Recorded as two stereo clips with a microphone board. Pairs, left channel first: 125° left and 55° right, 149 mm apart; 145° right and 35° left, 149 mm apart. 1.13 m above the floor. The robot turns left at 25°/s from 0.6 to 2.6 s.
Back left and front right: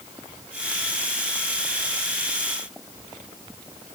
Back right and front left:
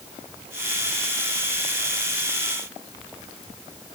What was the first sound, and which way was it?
Only background noise.